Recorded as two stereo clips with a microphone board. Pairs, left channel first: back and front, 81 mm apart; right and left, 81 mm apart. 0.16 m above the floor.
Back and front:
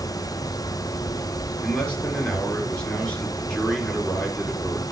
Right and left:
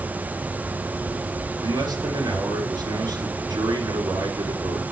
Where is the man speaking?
110° left, 2.5 m.